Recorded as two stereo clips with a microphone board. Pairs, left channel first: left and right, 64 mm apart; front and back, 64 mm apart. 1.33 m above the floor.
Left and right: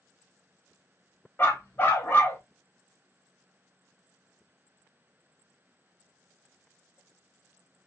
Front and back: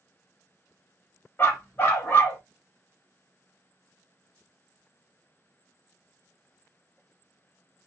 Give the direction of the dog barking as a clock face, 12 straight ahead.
10 o'clock.